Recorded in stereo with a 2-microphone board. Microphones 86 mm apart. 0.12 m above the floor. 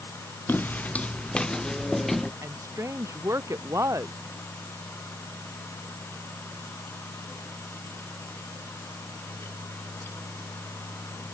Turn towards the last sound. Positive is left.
turn(degrees=-35)  # may be behind; listen again after turning